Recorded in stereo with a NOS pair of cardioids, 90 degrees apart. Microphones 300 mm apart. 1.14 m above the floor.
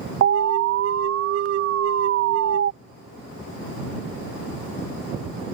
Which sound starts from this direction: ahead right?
An alarm, at 0.2 s.